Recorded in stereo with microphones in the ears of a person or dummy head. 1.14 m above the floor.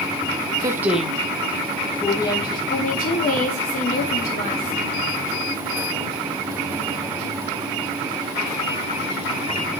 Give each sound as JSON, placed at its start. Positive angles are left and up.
{"t": 0.6, "sound": "a woman speaking", "side_deg": -20, "distance_m": 0.8}
{"t": 2.7, "sound": "a woman speaking", "side_deg": 40, "distance_m": 2.5}